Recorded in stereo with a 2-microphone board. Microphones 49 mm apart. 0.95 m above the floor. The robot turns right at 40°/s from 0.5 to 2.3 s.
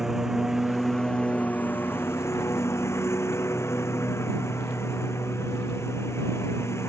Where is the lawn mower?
10° right; by 6.9 s 65° left.